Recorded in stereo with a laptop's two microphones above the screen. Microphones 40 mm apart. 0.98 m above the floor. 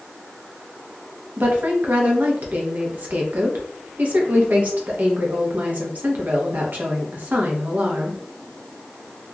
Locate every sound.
1.4 s a woman speaking: 45° right (ahead or behind), 0.9 m